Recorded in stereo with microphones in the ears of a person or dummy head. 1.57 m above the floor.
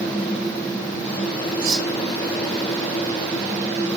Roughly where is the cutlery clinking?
Right.